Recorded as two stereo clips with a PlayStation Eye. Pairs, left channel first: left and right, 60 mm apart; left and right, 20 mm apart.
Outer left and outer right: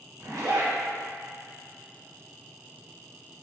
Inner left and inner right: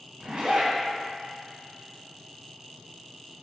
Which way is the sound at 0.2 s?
60° right (ahead or behind).